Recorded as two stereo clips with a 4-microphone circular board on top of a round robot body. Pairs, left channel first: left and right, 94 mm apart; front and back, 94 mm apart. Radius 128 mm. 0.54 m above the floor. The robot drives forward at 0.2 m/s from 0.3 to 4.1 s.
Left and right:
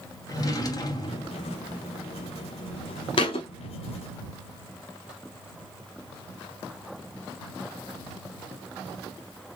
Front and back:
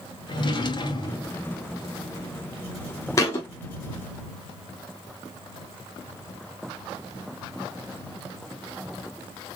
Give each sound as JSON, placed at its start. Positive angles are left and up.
{"t": 0.3, "sound": "a drawer", "azimuth_deg": 40, "distance_m": 1.2}
{"t": 3.2, "sound": "a thud", "azimuth_deg": 60, "distance_m": 0.7}